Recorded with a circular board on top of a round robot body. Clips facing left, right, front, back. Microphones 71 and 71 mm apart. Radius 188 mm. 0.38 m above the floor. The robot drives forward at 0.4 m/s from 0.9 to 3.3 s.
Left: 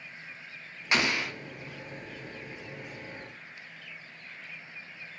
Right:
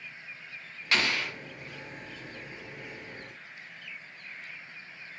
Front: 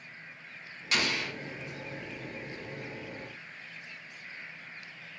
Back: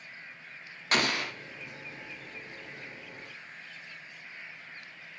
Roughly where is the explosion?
Behind.